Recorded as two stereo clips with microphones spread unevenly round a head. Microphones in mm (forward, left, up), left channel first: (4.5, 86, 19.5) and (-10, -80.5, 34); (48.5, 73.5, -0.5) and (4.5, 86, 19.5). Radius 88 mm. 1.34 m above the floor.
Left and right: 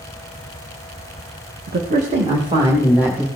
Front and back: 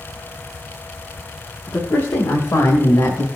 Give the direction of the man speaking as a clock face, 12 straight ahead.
2 o'clock.